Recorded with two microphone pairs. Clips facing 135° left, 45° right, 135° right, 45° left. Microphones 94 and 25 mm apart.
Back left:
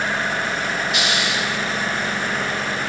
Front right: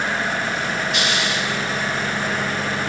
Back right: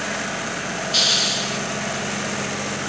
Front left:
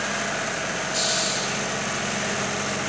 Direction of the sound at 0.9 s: 140° right.